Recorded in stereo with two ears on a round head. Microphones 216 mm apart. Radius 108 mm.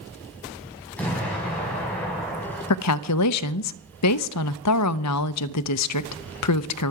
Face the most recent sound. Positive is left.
turn(degrees=75)  # may be behind; listen again after turning